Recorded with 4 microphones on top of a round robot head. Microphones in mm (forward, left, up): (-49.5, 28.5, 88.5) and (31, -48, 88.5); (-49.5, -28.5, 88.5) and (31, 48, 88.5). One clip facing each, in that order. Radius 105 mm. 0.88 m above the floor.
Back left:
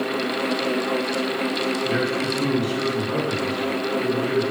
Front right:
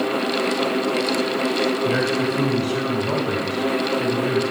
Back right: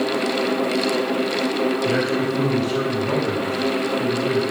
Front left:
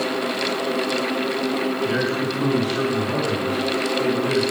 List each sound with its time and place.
1.9 s a man speaking: 90° right, 4 m